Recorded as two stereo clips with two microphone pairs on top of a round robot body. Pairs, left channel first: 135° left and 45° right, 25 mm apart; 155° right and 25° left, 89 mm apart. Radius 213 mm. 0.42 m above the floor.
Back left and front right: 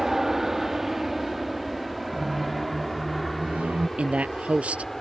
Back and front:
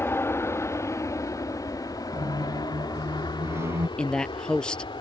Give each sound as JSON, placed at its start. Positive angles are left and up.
{"t": 0.0, "sound": "an aircraft", "azimuth_deg": -110}
{"t": 2.1, "sound": "a squeak", "azimuth_deg": -35}
{"t": 4.0, "sound": "a man speaking", "azimuth_deg": -70}